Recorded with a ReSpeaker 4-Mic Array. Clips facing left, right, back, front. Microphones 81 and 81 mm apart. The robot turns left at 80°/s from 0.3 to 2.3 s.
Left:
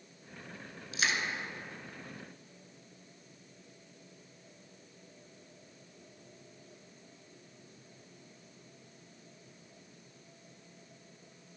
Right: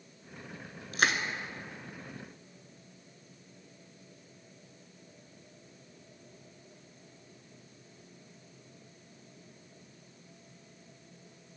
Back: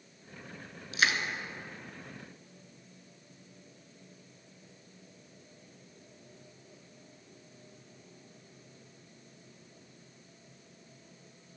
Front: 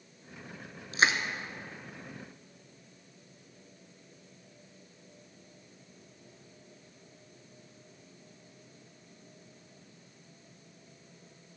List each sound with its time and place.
0.9 s crushing: 50° right, 1.2 m; by 1.2 s 75° right, 1.2 m